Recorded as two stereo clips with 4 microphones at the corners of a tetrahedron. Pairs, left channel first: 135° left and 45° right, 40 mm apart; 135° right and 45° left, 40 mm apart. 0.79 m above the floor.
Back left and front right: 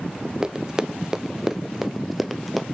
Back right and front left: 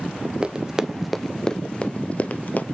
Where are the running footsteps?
10° left, 0.8 m; by 2.6 s 135° right, 1.1 m.